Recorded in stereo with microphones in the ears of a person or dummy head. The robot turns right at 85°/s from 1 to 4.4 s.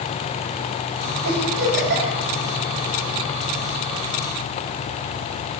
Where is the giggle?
60° right (ahead or behind), 5.5 m; by 2.2 s 40° right (ahead or behind), 5.5 m.